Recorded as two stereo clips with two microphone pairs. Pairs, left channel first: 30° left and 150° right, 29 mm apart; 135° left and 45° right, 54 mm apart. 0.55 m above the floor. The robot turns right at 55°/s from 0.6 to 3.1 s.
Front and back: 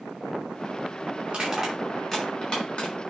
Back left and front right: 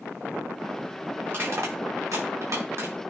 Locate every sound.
1.3 s crushing: 100° right, 5 m; by 2.9 s 5° right, 5 m